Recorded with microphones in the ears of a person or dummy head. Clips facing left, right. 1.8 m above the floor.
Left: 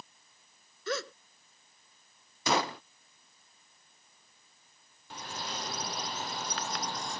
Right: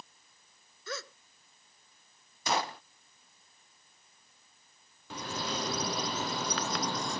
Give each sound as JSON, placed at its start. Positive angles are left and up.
{"t": 0.9, "sound": "a gasp", "side_deg": 60}
{"t": 2.5, "sound": "a gunshot", "side_deg": 60}
{"t": 5.1, "sound": "a bird", "side_deg": -65}